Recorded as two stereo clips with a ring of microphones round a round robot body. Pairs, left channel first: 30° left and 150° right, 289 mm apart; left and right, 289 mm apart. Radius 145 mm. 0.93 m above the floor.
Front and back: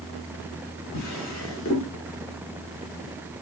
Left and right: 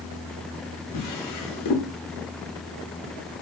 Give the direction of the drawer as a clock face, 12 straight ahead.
10 o'clock.